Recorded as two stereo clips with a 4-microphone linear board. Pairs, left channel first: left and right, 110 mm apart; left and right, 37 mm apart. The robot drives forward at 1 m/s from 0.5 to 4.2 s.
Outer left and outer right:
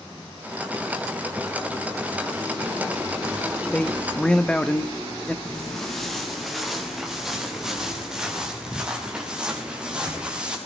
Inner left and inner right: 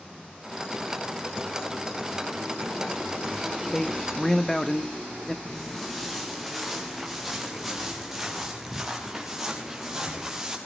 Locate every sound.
3.7 s a man speaking: 10° left (ahead or behind), 1.2 m
5.5 s footsteps: 5° left (ahead or behind), 4 m; by 10.6 s 10° right (ahead or behind), 8 m